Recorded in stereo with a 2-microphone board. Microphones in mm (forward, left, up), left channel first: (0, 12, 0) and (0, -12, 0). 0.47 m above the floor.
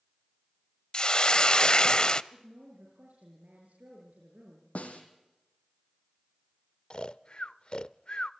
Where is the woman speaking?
85° right, 7.5 m.